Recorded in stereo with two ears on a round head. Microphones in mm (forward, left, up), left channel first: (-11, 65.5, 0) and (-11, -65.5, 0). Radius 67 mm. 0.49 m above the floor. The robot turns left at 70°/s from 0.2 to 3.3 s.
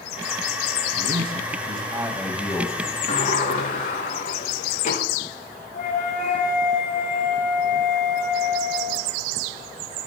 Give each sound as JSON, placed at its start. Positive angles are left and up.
{"t": 1.0, "sound": "a man speaking", "azimuth_deg": -85, "distance_m": 3.0}
{"t": 3.1, "sound": "a sliding door", "side_deg": 45, "distance_m": 4.5}
{"t": 5.7, "sound": "a flute", "side_deg": 50, "distance_m": 4.0}